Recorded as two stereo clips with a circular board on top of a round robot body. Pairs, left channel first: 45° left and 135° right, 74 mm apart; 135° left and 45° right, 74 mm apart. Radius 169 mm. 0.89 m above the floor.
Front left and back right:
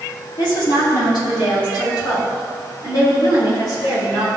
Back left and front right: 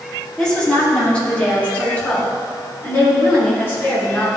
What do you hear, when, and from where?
0.4 s a woman speaking: 55° left, 3 m; by 4.3 s 75° left, 5.5 m